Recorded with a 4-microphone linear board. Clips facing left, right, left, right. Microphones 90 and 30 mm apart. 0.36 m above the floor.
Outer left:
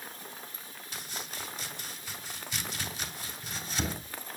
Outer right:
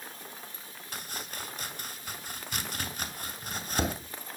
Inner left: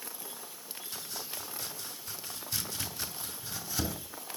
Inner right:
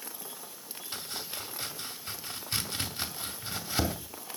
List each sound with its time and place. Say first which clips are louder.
0.9 s chopping: outer right 2 dB, inner right 4 dB; 50° right (ahead or behind), 2.5 m